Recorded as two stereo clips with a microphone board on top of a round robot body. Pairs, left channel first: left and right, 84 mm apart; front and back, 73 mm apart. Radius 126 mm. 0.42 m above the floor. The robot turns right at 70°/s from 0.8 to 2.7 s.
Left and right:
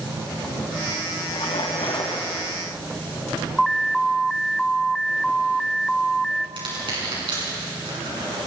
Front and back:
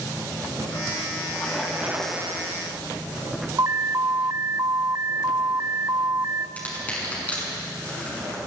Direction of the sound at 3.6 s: Straight behind.